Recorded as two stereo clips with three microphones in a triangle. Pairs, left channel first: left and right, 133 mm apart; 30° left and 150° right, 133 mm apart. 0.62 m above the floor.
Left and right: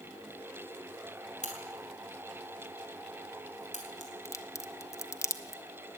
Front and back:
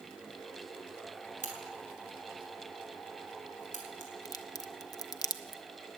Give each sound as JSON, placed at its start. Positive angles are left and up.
{"t": 1.4, "sound": "a crack", "azimuth_deg": 60, "distance_m": 3.5}
{"t": 4.2, "sound": "a crack", "azimuth_deg": 50, "distance_m": 0.9}